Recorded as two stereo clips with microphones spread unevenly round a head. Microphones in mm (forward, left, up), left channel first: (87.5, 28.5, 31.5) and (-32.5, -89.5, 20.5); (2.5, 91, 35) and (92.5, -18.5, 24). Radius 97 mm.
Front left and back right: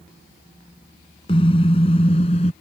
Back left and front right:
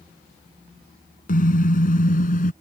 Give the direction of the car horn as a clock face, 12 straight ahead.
8 o'clock.